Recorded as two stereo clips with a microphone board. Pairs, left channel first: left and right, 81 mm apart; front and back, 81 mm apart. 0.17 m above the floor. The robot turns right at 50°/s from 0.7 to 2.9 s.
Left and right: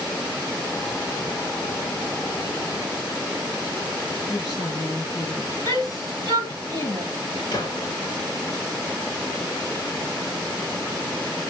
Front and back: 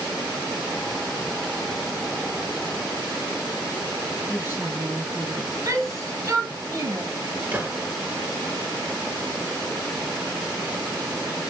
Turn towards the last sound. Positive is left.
turn(degrees=115)